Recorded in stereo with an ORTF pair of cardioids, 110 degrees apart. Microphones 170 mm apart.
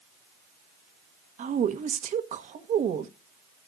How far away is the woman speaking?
About 1.3 m.